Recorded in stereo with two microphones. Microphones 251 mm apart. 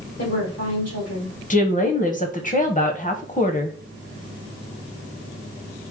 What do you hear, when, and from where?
0.2 s a woman speaking: 85° left, 2 m
1.5 s a woman speaking: 30° left (ahead or behind), 0.7 m